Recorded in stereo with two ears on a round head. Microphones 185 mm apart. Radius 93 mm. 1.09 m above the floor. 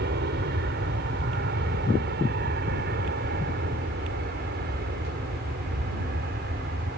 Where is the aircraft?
55° right (ahead or behind); by 7.0 s 50° right (ahead or behind).